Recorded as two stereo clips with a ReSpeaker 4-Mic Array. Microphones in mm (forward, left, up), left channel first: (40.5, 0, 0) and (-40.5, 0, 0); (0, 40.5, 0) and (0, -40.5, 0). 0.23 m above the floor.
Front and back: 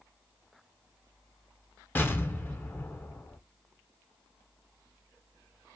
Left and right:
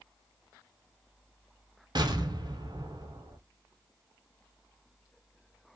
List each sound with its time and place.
1.9 s an explosion: 65° right, 0.5 m